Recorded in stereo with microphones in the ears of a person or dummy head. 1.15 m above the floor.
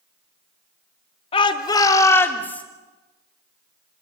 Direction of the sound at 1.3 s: 30° left (ahead or behind).